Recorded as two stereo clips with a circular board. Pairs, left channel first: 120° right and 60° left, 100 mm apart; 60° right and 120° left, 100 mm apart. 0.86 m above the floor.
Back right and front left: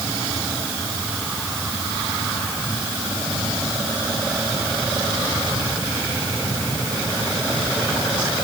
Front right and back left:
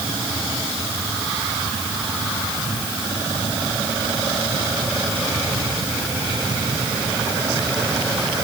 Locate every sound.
Only background noise.